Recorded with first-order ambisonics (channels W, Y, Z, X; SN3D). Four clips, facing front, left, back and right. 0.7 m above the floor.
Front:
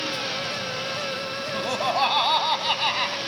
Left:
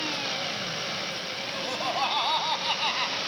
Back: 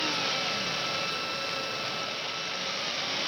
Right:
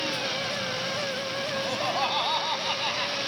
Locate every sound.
1.5 s laughter: 5° right; by 3.2 s 10° left